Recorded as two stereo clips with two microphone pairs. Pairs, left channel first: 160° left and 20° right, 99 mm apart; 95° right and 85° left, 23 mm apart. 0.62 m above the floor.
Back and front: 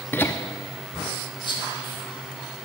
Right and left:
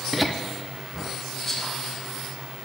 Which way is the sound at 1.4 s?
170° right.